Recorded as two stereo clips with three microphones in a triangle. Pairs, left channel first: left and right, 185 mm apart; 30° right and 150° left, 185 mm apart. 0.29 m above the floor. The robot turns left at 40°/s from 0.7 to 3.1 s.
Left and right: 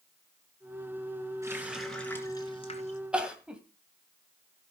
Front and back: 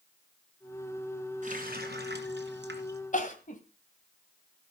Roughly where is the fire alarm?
I don't hear a fire alarm.